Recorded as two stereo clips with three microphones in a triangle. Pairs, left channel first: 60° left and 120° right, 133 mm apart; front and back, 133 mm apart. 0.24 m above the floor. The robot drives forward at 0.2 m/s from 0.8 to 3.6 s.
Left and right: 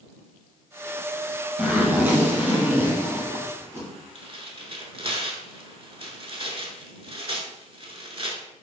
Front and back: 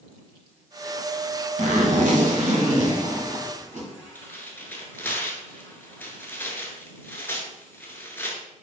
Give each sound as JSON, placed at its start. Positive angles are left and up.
{"t": 1.6, "sound": "a zipper", "azimuth_deg": 165, "distance_m": 0.7}
{"t": 4.2, "sound": "tearing paper", "azimuth_deg": -75, "distance_m": 0.7}